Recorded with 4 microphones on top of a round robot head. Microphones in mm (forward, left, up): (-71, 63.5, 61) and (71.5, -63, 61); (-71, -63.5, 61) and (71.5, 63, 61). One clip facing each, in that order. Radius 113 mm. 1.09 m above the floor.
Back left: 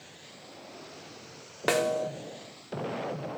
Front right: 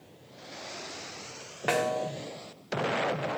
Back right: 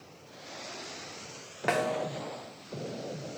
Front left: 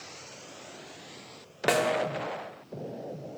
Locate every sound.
1.7 s a snare drum: 95° left, 1.0 m